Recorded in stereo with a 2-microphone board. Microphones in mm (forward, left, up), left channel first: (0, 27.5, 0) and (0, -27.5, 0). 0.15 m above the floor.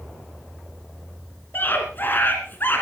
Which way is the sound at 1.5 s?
40° left (ahead or behind).